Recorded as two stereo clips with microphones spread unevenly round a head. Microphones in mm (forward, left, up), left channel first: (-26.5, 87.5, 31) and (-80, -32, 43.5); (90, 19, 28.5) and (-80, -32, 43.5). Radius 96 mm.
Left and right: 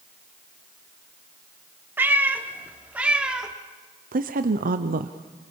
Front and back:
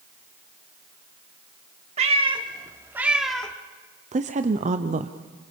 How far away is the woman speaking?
About 0.9 m.